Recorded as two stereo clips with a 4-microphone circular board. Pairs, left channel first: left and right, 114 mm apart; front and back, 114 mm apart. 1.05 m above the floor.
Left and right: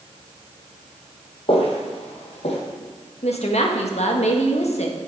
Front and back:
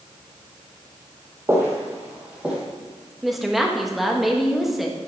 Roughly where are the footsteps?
Behind left.